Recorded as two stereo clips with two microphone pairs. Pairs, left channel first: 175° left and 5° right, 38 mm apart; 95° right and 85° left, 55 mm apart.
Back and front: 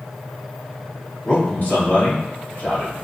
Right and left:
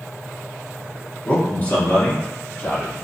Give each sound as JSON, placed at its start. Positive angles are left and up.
{"t": 1.2, "sound": "a man speaking", "azimuth_deg": -155, "distance_m": 1.9}